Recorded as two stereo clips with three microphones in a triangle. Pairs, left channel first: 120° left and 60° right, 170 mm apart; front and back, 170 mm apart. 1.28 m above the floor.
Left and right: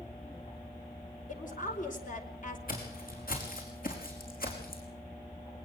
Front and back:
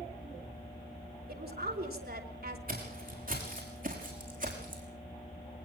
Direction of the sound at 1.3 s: 160° left.